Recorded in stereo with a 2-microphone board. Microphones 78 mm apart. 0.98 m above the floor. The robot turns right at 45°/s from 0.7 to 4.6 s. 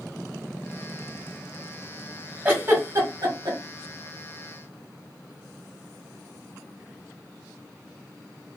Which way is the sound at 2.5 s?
30° right (ahead or behind).